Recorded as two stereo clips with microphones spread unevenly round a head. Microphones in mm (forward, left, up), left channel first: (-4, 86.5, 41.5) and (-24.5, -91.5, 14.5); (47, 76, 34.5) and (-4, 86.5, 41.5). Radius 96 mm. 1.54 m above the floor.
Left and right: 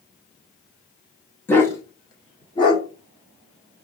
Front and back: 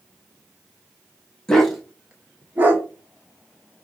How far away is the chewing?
No chewing in this recording.